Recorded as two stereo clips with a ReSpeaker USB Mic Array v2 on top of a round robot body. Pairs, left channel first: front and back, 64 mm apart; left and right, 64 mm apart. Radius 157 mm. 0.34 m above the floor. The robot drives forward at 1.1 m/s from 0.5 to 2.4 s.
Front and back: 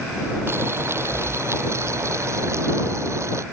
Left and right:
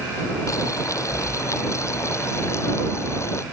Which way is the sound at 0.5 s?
125° left.